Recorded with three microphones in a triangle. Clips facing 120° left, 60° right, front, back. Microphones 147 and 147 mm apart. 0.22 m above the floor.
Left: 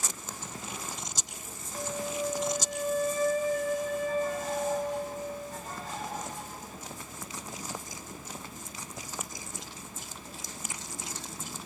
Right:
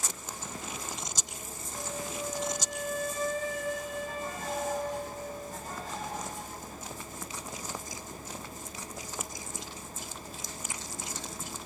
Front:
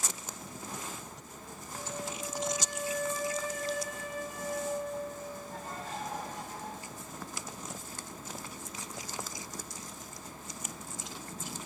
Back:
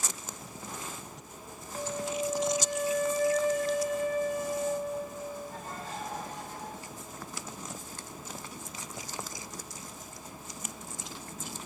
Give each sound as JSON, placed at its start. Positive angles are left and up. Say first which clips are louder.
{"t": 1.8, "sound": "a flute", "louder": "left 4 dB, back 7 dB", "azimuth_deg": 165, "distance_m": 1.0}